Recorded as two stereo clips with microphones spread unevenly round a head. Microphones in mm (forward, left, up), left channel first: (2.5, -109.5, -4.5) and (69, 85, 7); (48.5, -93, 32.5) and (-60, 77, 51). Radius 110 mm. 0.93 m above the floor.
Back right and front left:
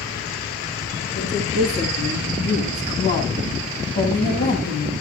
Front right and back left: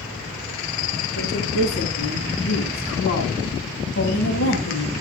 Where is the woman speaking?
75° right, 9.5 m; by 4.9 s 70° right, 6.5 m.